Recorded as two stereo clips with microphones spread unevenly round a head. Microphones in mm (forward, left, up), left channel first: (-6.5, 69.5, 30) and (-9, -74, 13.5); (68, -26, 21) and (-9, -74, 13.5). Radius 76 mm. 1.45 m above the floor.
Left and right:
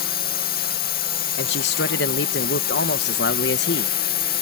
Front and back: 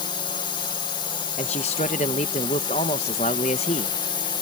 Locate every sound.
0.0 s a drone: 80° left
1.4 s a man speaking: 70° left